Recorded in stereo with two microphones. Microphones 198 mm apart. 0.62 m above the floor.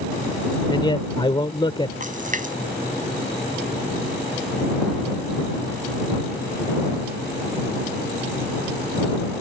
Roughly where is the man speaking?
Left.